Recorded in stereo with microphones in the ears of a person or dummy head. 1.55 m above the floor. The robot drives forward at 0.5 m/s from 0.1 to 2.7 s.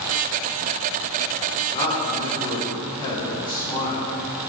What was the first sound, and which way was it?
A man speaking, 40° left (ahead or behind).